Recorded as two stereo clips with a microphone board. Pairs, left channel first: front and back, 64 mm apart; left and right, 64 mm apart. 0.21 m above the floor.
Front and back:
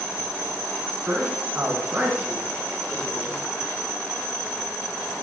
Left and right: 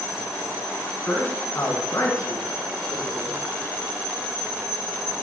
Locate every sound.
1.1 s a man speaking: 145° left, 1.5 m; by 3.4 s 110° left, 3.5 m